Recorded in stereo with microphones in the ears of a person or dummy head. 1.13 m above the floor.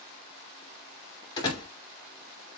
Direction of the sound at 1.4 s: 20° left (ahead or behind).